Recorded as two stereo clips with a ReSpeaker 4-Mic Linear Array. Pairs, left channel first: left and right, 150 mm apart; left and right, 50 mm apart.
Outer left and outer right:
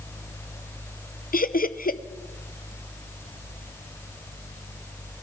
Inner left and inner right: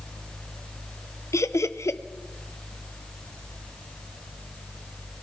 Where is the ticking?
No ticking in this recording.